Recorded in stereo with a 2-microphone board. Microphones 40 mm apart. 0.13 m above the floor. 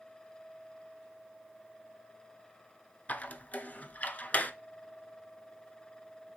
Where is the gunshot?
No gunshot in this recording.